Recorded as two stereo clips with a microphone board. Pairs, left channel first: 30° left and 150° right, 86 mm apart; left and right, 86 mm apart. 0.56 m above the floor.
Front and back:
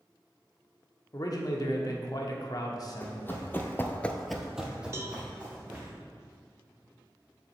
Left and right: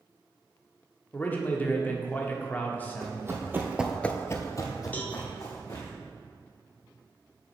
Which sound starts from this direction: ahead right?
Running footsteps, at 3.0 s.